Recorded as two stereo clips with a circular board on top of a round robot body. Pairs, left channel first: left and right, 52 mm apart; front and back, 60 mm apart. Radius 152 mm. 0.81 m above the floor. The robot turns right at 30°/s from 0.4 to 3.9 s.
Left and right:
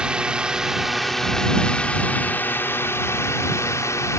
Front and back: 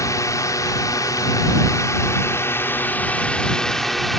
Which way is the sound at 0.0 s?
20° right.